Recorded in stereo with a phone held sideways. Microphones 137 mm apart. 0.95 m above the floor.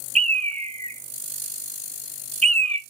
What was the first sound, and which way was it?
A bird, 55° right (ahead or behind).